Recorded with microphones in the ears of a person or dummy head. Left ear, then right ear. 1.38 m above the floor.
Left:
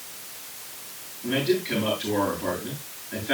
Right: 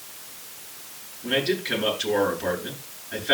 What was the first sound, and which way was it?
A man speaking, 35° right (ahead or behind).